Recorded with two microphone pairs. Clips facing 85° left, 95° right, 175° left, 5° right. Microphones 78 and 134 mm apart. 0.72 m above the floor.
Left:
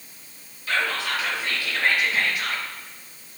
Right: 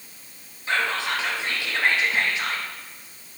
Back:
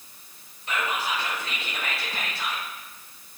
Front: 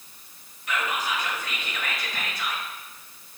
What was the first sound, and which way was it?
Whispering, 145° right.